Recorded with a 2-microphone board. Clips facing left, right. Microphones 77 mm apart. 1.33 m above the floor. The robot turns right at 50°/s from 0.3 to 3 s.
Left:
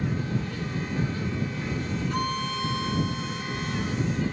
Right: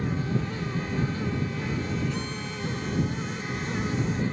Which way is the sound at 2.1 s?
55° left.